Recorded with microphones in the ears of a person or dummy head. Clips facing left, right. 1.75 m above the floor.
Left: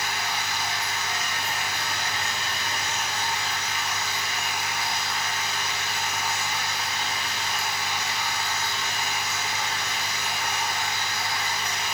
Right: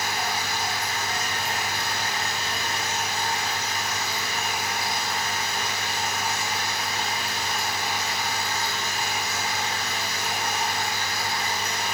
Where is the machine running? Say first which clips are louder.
Right 2 dB; 30° right (ahead or behind), 2.5 m.